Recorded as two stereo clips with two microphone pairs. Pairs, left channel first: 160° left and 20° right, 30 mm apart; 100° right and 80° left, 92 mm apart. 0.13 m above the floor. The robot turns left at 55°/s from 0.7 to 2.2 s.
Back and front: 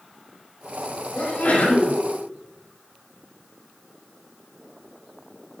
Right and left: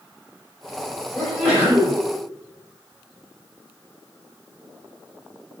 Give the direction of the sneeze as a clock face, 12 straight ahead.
6 o'clock.